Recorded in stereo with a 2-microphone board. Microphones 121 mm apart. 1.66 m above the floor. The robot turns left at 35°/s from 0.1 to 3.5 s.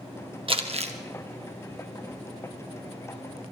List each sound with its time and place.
0.5 s crumpling: 50° right (ahead or behind), 1.4 m; by 0.9 s 65° right (ahead or behind), 1.4 m